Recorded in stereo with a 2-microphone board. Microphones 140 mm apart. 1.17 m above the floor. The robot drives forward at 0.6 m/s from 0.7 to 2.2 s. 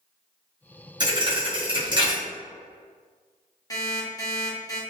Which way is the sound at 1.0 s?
30° right (ahead or behind).